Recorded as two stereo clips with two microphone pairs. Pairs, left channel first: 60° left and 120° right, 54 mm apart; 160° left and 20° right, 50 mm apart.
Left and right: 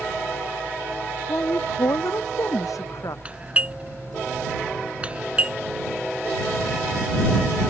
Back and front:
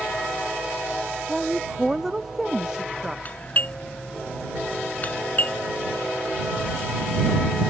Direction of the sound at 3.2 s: 175° right.